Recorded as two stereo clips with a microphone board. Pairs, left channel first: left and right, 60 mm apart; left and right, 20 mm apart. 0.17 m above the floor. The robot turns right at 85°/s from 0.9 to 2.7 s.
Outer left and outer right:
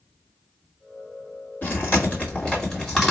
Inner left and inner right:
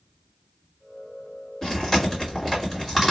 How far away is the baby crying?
No baby crying in this recording.